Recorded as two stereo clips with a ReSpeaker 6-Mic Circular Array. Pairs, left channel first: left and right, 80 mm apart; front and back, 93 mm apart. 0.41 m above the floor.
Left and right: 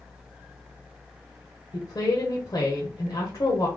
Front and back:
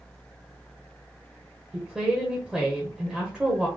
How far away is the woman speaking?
About 1.3 m.